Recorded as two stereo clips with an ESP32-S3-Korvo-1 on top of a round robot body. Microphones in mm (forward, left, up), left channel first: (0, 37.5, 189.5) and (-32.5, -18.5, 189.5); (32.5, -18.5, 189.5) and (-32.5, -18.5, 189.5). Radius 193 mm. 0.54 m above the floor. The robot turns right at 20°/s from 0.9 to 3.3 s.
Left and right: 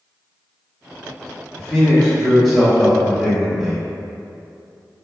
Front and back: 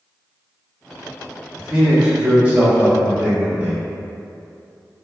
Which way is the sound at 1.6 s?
130° left.